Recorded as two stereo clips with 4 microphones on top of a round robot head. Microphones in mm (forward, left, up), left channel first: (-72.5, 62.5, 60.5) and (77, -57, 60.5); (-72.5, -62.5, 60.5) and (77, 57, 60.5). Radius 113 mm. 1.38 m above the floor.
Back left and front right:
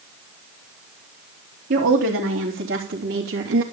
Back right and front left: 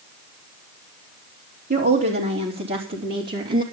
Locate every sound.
1.7 s a woman speaking: 5° left, 3.5 m; by 3.6 s 5° right, 2.5 m